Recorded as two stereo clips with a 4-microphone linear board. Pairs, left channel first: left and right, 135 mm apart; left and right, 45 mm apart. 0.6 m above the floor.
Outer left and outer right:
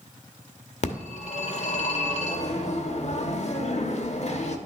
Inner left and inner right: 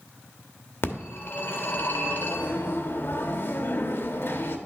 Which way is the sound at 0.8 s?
55° left (ahead or behind).